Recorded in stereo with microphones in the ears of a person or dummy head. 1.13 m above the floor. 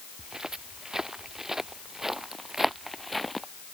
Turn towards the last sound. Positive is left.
turn(degrees=0)  # may be behind; listen again after turning